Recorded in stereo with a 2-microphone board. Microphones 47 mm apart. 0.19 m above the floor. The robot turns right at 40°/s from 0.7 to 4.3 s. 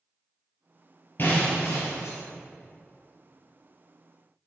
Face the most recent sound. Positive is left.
turn(degrees=175)